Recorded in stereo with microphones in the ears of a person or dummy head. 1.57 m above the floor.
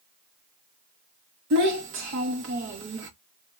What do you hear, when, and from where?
1.5 s a child speaking: 50° right (ahead or behind), 0.7 m